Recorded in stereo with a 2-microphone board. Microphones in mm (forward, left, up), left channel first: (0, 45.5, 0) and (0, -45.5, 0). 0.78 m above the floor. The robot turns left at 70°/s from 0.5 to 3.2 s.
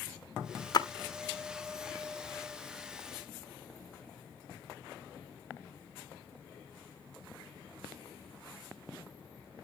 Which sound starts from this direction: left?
A splash, at 0.7 s.